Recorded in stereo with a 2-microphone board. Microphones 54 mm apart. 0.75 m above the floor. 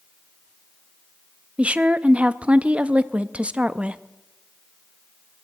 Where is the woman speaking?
20° right (ahead or behind), 0.5 m.